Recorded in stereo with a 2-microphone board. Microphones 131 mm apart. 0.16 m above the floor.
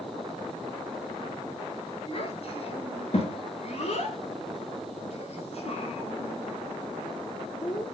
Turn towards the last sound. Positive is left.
turn(degrees=35)  # may be behind; listen again after turning